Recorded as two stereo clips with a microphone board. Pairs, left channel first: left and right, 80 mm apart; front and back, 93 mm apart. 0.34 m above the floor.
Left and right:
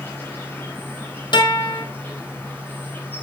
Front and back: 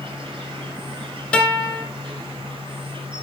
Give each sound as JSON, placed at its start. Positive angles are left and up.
{"t": 0.0, "sound": "an insect", "azimuth_deg": 155, "distance_m": 4.5}
{"t": 1.3, "sound": "a guitar", "azimuth_deg": 80, "distance_m": 4.0}